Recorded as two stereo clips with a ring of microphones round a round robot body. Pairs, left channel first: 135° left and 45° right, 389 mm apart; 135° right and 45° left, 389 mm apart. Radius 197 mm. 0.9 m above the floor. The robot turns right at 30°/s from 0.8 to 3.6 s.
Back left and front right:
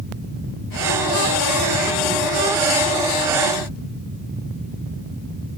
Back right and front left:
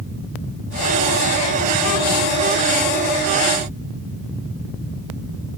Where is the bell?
No bell in this recording.